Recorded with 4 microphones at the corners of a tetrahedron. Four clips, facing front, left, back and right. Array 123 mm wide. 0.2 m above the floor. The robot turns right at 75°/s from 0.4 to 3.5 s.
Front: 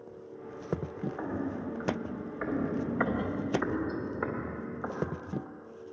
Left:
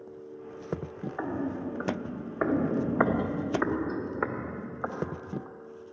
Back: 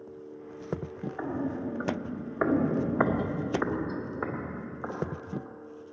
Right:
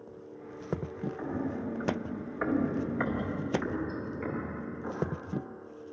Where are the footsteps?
85° left, 2.5 m; by 5.5 s 105° left, 4 m.